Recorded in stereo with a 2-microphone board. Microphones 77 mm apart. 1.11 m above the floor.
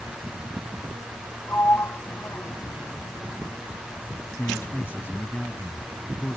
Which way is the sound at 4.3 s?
30° left (ahead or behind).